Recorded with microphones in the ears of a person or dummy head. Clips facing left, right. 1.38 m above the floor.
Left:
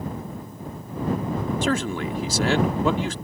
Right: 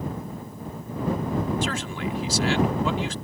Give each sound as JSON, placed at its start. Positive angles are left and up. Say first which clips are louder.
{"t": 1.6, "sound": "a man speaking", "louder": "left 5 dB", "side_deg": 55}